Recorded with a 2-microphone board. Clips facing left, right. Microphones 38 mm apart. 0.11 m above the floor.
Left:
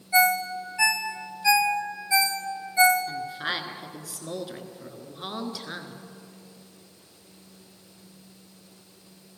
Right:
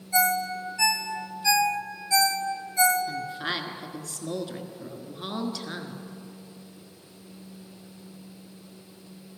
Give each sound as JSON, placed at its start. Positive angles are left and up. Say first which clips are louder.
{"t": 0.1, "sound": "a ringtone", "louder": "left 3 dB", "side_deg": 25, "distance_m": 1.1}
{"t": 3.1, "sound": "a woman speaking", "louder": "even", "side_deg": 10, "distance_m": 1.3}